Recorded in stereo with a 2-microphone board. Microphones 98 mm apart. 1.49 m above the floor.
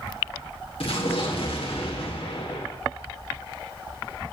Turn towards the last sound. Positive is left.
turn(degrees=75)  # may be behind; listen again after turning